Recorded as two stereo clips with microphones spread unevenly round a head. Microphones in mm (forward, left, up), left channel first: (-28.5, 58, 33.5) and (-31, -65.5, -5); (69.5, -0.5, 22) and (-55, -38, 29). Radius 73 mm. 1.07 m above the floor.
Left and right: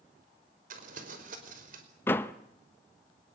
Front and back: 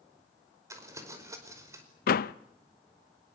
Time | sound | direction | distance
0.7 | crumpling | 95° right | 5 m
2.1 | a door slam | 10° left | 0.7 m